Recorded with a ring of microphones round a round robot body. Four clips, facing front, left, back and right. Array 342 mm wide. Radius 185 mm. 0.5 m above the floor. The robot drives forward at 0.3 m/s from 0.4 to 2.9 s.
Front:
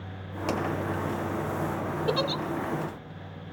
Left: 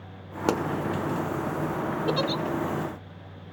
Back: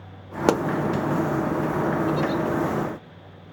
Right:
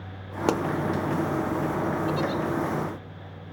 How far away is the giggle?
About 1.2 m.